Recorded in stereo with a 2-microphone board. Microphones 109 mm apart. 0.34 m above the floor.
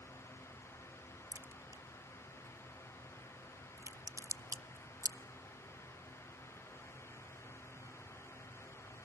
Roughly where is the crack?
Right.